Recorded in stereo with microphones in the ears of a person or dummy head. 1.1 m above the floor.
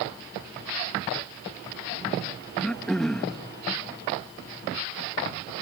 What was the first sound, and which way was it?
Throat clearing, centre (ahead or behind).